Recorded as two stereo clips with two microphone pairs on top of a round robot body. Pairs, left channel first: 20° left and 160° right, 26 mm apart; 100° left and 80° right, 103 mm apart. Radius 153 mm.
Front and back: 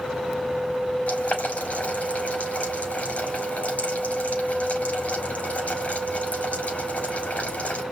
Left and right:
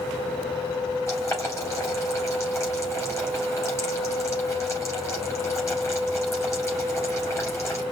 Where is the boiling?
35° left, 4 m.